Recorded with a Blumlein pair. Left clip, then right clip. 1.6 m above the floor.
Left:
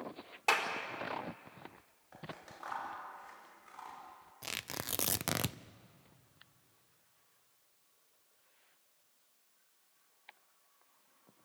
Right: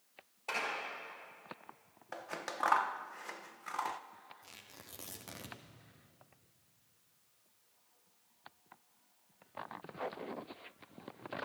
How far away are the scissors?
About 1.1 m.